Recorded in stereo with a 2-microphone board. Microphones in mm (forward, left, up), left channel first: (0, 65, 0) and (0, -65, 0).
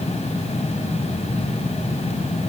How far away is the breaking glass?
No breaking glass in this recording.